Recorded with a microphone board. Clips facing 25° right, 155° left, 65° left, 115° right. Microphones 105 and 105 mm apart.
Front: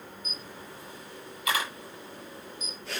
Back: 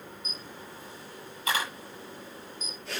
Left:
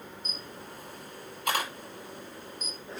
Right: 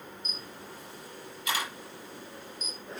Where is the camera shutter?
100° left, 6.5 m.